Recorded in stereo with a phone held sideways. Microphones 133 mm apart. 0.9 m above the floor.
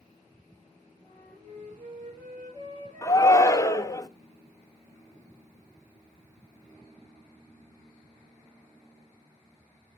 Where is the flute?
65° right (ahead or behind), 6.5 m.